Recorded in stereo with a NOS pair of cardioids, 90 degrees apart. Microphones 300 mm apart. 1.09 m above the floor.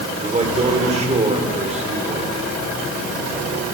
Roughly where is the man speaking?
Ahead.